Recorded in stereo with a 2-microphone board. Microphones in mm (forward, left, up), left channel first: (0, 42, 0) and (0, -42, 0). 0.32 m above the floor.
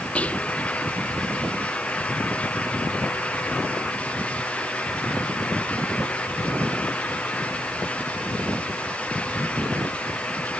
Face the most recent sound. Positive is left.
turn(degrees=15)  # may be behind; listen again after turning